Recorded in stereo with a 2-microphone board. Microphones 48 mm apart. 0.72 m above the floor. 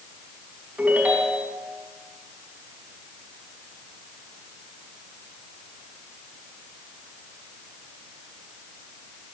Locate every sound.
0.8 s a ringtone: 35° right (ahead or behind), 3.5 m